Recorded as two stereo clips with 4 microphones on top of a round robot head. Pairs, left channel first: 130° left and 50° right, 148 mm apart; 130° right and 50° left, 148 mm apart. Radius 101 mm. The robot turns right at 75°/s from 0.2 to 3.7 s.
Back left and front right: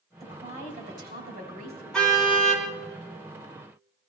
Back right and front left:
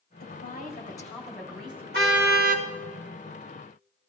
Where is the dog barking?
No dog barking in this recording.